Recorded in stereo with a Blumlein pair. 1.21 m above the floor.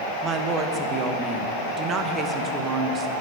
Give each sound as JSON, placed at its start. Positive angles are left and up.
{"t": 0.2, "sound": "a woman speaking", "azimuth_deg": -25, "distance_m": 1.2}